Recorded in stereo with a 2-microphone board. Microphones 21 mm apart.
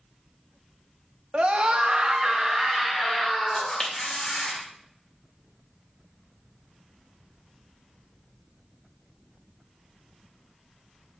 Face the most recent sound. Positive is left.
turn(degrees=40)  # may be behind; listen again after turning